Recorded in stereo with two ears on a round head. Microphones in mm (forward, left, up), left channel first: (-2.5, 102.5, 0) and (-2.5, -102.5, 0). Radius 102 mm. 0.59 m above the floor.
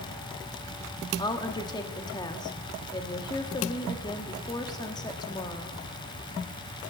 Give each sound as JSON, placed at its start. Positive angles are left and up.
{"t": 1.2, "sound": "a woman speaking", "side_deg": 15, "distance_m": 1.1}